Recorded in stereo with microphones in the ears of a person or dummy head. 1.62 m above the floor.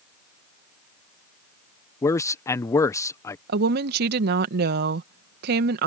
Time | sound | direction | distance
2.0 | a man speaking | 20° left (ahead or behind) | ?
3.5 | a woman speaking | 60° right (ahead or behind) | ?